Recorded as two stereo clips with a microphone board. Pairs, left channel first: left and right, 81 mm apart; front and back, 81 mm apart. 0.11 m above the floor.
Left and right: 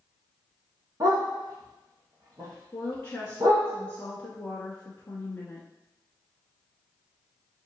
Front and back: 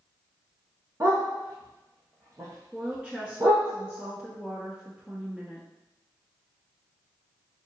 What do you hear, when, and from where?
1.0 s a dog barking: 130° right, 1.6 m
2.7 s a woman speaking: 120° left, 1.1 m